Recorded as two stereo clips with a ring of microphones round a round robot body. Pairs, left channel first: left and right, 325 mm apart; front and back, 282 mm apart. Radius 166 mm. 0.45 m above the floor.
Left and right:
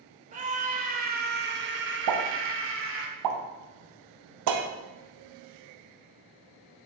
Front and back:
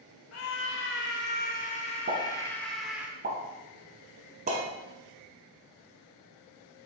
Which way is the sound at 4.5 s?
115° right.